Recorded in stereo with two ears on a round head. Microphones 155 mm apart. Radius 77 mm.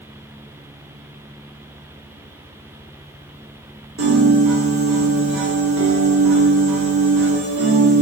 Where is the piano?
85° right, 2.5 m.